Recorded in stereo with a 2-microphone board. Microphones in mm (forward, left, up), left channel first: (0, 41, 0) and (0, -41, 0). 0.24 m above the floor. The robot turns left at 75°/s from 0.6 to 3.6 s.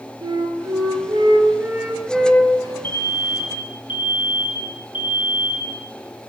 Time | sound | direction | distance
0.2 | a flute | 70° right | 4.5 m
2.8 | an alarm | 155° left | 7.5 m